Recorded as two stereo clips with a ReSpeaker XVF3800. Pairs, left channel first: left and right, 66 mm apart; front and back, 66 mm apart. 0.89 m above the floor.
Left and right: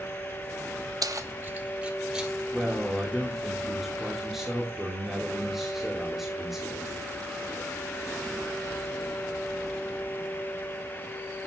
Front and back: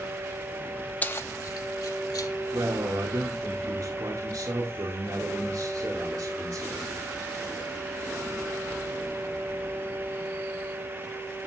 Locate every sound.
1.0 s keys jangling: 70° right, 0.7 m; by 2.3 s 10° right, 2.0 m
2.5 s a man speaking: 175° right, 2.5 m